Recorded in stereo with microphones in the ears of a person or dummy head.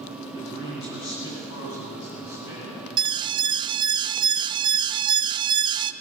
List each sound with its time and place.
0.3 s a man speaking: 60° left (ahead or behind), 8.5 m; by 2.9 s 70° left (ahead or behind), 10.5 m
3.0 s an alarm: 20° right (ahead or behind), 0.6 m